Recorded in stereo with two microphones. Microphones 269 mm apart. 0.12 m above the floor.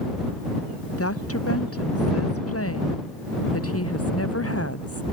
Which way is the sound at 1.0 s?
60° left (ahead or behind).